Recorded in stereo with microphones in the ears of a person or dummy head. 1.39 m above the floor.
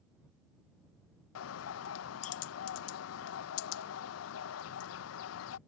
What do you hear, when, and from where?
1.4 s a bird: 80° left